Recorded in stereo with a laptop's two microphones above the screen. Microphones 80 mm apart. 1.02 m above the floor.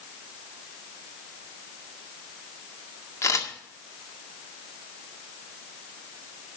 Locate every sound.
3.2 s a camera shutter: 40° left (ahead or behind), 1.9 m